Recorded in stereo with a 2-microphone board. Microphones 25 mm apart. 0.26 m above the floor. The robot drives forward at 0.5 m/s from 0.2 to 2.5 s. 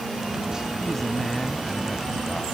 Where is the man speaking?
10° left (ahead or behind); by 2.5 s 15° left (ahead or behind).